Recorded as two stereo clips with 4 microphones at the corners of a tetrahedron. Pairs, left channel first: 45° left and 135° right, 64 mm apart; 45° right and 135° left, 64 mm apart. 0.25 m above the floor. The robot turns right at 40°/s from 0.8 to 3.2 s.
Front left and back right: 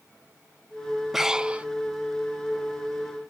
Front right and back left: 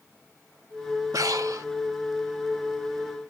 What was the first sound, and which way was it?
Breathing, 140° left.